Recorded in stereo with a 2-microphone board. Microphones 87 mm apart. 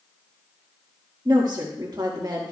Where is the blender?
No blender in this recording.